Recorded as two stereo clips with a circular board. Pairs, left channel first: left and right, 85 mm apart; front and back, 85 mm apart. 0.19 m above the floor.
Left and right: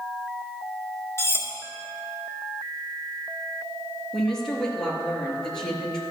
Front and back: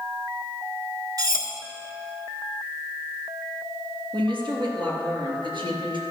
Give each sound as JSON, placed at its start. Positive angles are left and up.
{"t": 1.2, "sound": "cutlery clinking", "azimuth_deg": 145, "distance_m": 1.6}
{"t": 4.1, "sound": "a woman speaking", "azimuth_deg": 175, "distance_m": 3.5}